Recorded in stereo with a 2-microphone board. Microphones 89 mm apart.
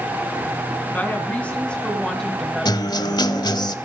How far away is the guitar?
About 1.1 m.